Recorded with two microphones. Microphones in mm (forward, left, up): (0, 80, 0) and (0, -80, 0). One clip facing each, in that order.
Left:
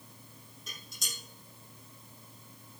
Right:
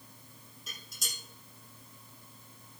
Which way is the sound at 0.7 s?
Centre (ahead or behind).